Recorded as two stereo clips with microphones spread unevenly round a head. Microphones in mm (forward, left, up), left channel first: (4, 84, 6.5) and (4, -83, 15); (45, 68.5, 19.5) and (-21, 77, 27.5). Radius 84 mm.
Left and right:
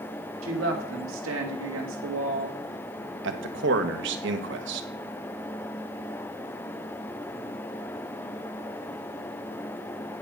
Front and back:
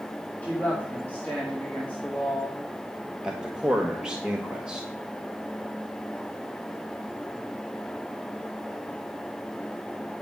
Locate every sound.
0.4 s a woman speaking: 85° right, 2.0 m
3.2 s a man speaking: 105° right, 1.1 m